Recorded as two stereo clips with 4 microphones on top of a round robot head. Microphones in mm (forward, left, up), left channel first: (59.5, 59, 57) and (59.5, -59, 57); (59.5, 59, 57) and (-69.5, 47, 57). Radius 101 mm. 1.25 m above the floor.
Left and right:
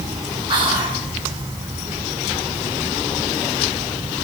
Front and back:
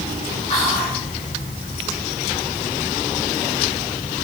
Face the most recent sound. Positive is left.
turn(degrees=-45)